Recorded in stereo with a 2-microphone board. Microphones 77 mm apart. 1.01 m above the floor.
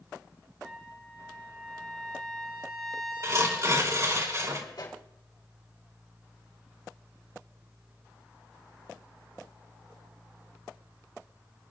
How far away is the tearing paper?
About 3 m.